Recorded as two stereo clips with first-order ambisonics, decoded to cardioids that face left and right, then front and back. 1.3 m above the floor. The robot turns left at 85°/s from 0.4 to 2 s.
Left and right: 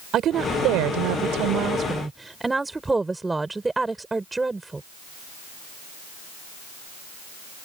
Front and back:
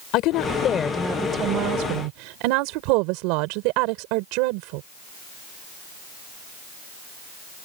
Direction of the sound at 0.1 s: 35° right.